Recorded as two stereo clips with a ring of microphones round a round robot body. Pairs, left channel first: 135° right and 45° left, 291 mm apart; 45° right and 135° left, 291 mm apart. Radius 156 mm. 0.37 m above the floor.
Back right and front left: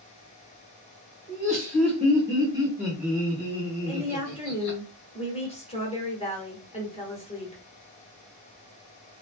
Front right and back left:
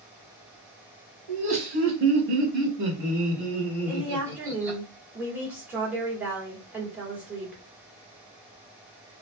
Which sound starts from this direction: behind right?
A woman speaking, at 3.9 s.